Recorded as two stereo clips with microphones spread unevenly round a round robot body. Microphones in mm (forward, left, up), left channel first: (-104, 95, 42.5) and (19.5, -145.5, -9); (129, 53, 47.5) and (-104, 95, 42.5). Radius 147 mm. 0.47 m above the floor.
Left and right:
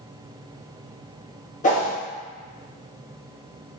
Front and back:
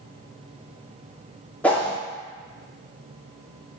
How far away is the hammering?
I don't hear hammering.